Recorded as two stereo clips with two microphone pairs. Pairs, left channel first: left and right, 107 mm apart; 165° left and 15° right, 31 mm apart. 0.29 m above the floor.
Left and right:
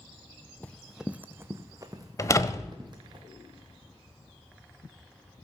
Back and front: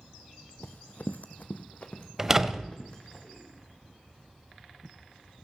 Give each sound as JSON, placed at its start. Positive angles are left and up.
{"t": 0.6, "sound": "running footsteps", "azimuth_deg": 165, "distance_m": 0.7}
{"t": 2.2, "sound": "a door slam", "azimuth_deg": 55, "distance_m": 0.8}